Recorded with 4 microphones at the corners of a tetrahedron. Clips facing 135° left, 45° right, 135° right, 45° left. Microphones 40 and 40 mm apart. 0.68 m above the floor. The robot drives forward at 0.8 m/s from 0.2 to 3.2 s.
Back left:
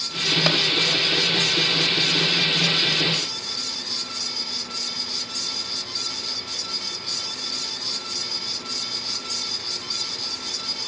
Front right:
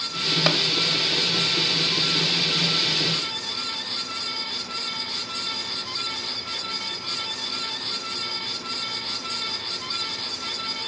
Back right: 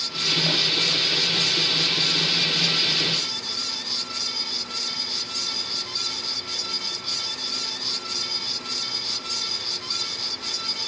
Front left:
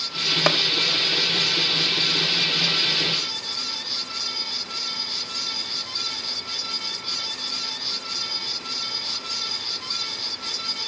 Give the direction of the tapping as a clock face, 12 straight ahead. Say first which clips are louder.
Even, front left 7 dB; 11 o'clock.